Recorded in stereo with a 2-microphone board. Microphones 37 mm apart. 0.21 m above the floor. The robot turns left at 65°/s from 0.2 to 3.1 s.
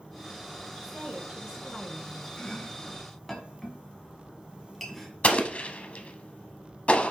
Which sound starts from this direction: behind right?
A woman speaking, at 0.8 s.